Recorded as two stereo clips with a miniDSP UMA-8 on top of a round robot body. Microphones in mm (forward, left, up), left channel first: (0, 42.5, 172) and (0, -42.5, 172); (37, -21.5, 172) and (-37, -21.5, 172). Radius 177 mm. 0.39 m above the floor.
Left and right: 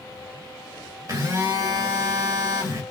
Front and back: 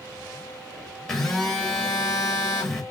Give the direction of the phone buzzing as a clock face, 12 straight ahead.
3 o'clock.